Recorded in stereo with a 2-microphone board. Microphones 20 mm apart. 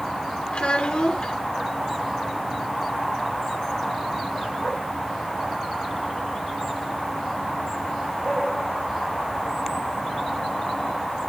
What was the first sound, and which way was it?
A child speaking, 60° left (ahead or behind).